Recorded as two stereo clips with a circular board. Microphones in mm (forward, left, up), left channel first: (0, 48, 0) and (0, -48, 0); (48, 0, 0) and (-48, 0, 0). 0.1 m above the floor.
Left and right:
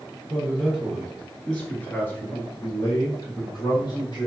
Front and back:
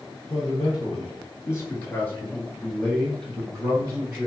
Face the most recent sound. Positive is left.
turn(degrees=95)